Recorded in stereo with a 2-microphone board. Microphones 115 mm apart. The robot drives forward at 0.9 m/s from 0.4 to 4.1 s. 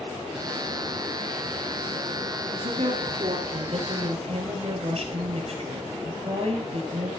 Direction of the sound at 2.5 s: 55° right (ahead or behind).